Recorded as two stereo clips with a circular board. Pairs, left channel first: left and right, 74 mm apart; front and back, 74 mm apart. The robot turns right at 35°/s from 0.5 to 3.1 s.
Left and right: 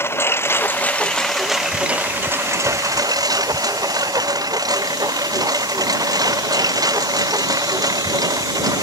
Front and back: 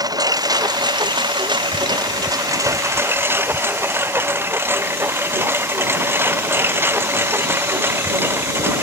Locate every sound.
0.0 s a lawn mower: 150° left; by 8.8 s 120° right